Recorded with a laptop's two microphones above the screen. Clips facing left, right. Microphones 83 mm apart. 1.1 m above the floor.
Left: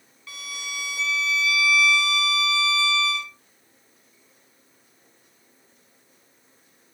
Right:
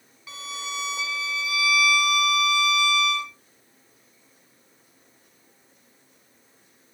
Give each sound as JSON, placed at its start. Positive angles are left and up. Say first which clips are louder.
{"t": 0.3, "sound": "a violin", "louder": "right 3 dB", "side_deg": -15, "distance_m": 0.7}